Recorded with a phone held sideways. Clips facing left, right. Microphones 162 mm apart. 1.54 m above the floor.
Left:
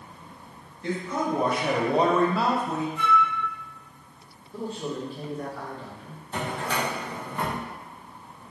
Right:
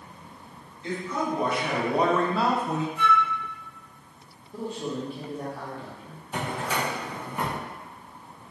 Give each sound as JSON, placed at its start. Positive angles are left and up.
{"t": 0.8, "sound": "a man speaking", "side_deg": 50, "distance_m": 1.4}
{"t": 3.0, "sound": "a flute", "side_deg": -50, "distance_m": 1.6}
{"t": 4.5, "sound": "a man speaking", "side_deg": -15, "distance_m": 1.0}
{"t": 6.3, "sound": "a drawer", "side_deg": -10, "distance_m": 0.7}